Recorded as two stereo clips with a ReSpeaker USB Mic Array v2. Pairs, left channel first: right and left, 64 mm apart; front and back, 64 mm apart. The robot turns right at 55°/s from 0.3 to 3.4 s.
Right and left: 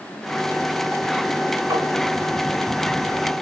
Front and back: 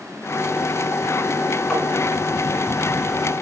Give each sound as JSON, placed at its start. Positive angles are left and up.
{"t": 1.7, "sound": "tapping", "azimuth_deg": 65, "distance_m": 1.3}